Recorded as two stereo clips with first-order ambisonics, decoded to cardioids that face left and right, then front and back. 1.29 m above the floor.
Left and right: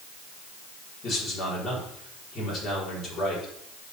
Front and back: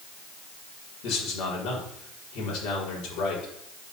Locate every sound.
1.0 s a man speaking: 30° left, 4 m